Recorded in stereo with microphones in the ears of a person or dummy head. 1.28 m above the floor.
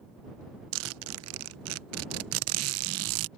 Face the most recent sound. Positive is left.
turn(degrees=-75)  # may be behind; listen again after turning